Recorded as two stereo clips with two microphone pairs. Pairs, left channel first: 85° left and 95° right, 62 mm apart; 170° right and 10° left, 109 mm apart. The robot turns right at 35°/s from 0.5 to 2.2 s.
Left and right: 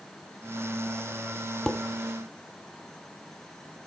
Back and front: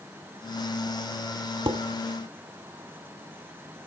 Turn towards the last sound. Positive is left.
turn(degrees=20)